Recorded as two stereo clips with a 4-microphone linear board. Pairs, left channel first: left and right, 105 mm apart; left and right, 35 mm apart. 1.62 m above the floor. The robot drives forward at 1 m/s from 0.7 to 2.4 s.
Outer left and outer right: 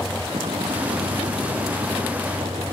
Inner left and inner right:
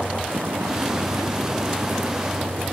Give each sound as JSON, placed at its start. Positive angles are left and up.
{"t": 0.0, "sound": "a vehicle", "side_deg": -75}